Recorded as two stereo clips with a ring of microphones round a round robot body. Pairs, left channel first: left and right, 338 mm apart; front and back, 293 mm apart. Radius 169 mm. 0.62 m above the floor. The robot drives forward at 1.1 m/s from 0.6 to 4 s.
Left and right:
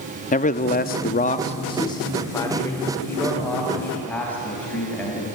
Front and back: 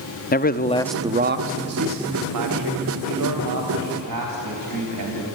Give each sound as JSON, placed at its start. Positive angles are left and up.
{"t": 0.3, "sound": "a man speaking", "azimuth_deg": 40, "distance_m": 0.7}